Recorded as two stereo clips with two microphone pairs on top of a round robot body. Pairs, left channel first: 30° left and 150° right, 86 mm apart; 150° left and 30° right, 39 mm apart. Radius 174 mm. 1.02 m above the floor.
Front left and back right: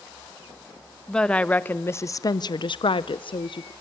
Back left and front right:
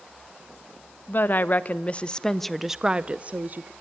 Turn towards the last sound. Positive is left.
turn(degrees=10)